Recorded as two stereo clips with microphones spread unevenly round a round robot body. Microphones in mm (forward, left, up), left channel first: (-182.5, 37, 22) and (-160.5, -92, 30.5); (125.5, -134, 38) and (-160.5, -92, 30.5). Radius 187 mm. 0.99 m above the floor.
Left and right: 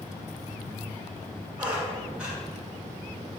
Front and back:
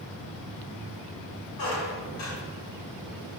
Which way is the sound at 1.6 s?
5° left.